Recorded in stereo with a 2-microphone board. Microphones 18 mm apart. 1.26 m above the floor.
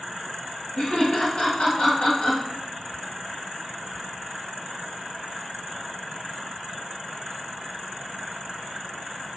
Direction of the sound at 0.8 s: 80° left.